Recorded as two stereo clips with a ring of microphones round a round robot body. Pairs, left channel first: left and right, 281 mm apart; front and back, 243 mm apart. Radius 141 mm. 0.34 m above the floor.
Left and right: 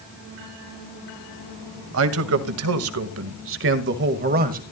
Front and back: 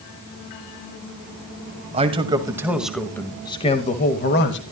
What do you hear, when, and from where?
1.9 s a man speaking: 115° right, 1.8 m; by 4.6 s 35° right, 1.8 m